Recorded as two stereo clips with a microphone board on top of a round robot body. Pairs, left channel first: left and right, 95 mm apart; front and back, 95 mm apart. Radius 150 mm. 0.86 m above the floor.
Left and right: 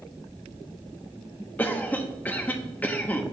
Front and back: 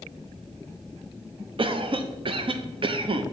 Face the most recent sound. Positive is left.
turn(degrees=160)